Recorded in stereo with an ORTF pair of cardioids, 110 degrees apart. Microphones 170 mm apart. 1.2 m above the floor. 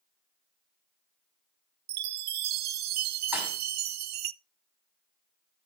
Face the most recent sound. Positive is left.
turn(degrees=-10)